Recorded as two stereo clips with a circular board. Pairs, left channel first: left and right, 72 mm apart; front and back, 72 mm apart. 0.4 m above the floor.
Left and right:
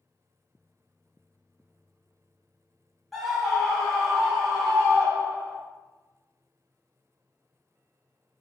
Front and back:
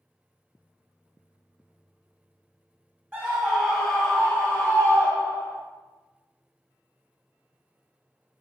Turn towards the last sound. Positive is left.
turn(degrees=5)